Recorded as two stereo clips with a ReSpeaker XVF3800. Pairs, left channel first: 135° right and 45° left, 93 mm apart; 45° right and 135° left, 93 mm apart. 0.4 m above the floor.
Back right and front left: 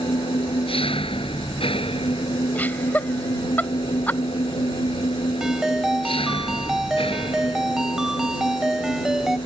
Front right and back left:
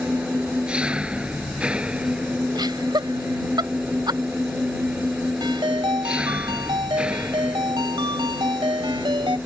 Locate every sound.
0.0 s an engine running: 145° right
2.5 s laughter: 155° left
5.4 s a ringtone: 130° left